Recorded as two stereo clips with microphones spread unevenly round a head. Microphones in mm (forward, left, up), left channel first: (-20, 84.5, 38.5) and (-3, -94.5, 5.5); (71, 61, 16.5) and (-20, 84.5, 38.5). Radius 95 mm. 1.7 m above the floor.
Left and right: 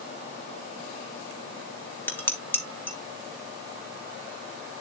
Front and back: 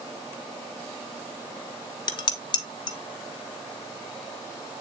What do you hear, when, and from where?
2.1 s dishes clattering: 25° left, 1.2 m